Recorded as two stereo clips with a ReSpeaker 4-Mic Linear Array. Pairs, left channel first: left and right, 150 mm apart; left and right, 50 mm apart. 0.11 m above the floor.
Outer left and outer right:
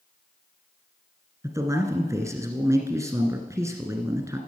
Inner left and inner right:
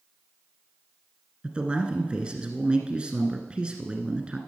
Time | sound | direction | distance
1.4 | a man speaking | 20° right (ahead or behind) | 1.3 m